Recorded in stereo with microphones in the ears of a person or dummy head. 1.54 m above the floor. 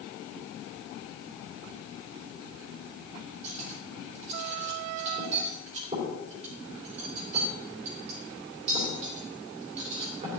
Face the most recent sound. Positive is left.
turn(degrees=-35)  # may be behind; listen again after turning